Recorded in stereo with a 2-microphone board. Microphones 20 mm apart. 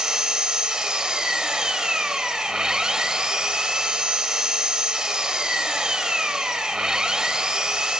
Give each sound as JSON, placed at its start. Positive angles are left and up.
{"t": 0.0, "sound": "an engine running", "side_deg": -35, "distance_m": 1.3}